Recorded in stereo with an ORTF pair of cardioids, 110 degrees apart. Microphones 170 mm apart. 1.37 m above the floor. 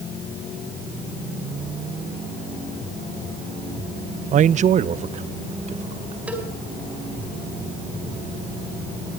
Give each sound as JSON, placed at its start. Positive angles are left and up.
{"t": 4.3, "sound": "a man speaking", "azimuth_deg": -50, "distance_m": 0.6}
{"t": 6.3, "sound": "a cowbell", "azimuth_deg": -10, "distance_m": 4.5}